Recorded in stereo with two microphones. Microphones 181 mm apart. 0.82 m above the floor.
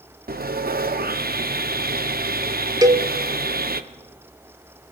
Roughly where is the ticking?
I don't hear ticking.